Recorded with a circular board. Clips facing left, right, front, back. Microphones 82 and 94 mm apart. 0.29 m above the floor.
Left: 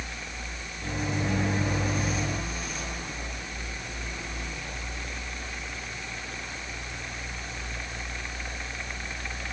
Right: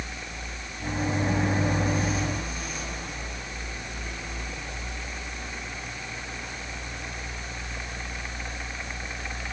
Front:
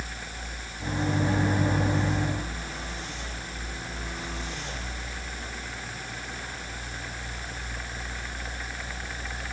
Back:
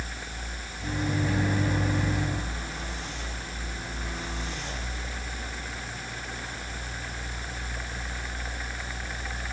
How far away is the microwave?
About 2 m.